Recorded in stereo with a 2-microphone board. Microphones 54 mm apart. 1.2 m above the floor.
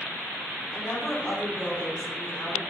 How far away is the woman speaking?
About 3 m.